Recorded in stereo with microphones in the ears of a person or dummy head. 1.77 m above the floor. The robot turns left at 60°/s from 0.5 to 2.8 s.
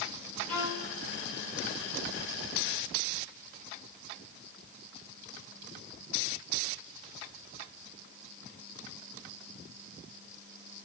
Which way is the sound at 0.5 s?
35° left (ahead or behind).